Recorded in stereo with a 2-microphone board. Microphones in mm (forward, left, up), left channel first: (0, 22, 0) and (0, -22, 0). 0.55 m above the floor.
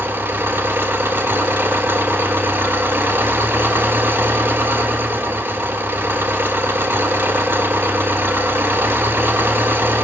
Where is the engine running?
60° right (ahead or behind), 1.4 m.